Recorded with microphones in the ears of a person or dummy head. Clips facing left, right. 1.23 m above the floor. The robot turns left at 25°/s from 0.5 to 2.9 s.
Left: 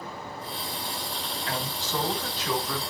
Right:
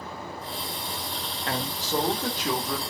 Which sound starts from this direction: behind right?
A man speaking, at 1.5 s.